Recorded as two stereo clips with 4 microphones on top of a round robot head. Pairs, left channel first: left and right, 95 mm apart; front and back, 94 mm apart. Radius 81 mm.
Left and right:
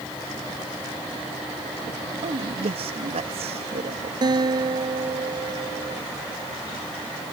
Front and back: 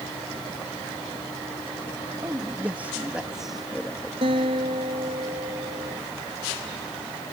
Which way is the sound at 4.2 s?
135° right.